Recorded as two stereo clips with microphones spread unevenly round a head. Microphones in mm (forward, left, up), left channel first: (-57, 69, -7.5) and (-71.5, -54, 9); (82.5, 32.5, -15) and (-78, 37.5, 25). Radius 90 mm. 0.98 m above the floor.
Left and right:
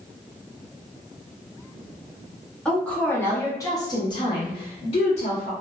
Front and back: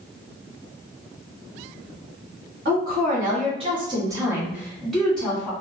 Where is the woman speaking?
160° left, 1.2 m; by 5.5 s 65° left, 1.5 m.